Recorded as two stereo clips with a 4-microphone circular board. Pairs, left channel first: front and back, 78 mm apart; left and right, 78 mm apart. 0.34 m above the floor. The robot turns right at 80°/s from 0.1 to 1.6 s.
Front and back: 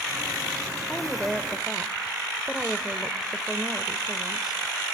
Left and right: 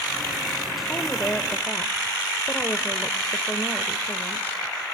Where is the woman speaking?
45° left, 1.0 m; by 4.5 s 105° left, 1.0 m.